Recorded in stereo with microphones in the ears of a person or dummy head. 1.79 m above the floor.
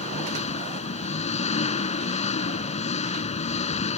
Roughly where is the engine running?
Left.